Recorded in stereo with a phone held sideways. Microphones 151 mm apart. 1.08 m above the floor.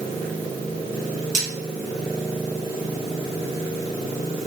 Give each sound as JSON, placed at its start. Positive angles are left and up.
{"t": 1.3, "sound": "cutlery clinking", "side_deg": 55, "distance_m": 1.3}